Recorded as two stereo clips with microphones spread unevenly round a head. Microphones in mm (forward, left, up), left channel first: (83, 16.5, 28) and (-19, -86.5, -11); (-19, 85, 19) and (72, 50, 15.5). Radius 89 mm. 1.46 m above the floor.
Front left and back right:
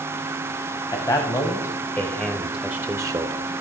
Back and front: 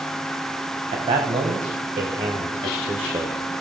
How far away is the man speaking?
About 1.6 m.